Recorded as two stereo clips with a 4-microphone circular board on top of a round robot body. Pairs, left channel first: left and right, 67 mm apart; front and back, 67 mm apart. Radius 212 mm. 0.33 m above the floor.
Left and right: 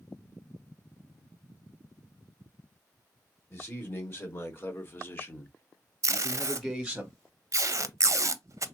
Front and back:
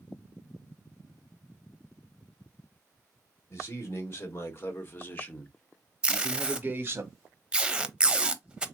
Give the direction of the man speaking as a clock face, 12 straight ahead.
11 o'clock.